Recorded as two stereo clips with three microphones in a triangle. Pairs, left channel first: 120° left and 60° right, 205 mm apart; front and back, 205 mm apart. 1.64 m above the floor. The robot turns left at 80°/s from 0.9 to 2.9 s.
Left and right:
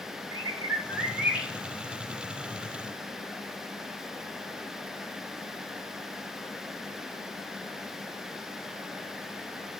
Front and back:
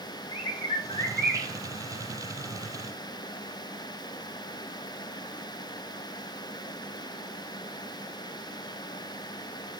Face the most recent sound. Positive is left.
turn(degrees=135)